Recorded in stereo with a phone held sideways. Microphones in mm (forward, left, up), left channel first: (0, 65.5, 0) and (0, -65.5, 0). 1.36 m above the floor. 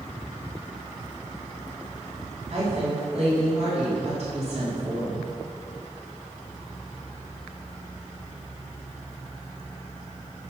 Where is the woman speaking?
55° right (ahead or behind), 3 m.